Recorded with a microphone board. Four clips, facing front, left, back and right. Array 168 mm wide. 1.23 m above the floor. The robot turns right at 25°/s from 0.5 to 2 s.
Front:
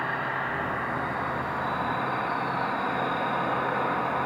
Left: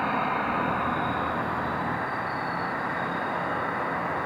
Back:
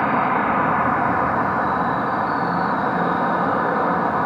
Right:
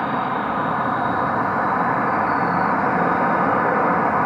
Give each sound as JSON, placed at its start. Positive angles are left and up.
{"t": 0.0, "sound": "an insect", "azimuth_deg": -160, "distance_m": 1.7}